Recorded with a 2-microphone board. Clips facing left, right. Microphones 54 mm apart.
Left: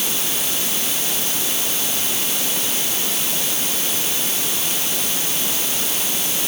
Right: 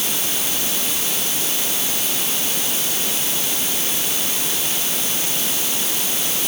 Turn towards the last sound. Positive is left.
No sound to turn to.